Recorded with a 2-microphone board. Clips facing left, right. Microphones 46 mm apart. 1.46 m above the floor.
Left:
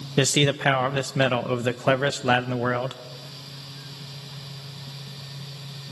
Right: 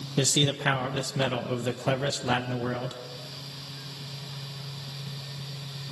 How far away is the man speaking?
About 1.0 m.